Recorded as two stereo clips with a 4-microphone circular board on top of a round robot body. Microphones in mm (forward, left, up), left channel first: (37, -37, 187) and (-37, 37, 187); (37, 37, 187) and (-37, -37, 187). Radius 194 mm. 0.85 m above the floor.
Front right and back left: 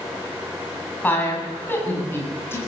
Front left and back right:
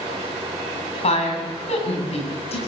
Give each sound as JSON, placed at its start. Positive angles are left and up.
{"t": 1.0, "sound": "a woman speaking", "azimuth_deg": 30, "distance_m": 8.5}